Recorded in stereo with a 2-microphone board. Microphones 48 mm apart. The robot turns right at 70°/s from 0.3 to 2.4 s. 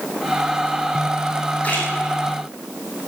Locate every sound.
1.6 s a splash: 30° left (ahead or behind), 5 m; by 1.9 s 45° left (ahead or behind), 5 m